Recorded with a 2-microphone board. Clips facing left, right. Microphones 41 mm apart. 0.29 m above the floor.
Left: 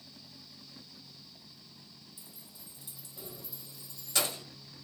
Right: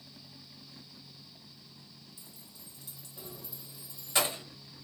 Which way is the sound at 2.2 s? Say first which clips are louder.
Even; 20° left (ahead or behind).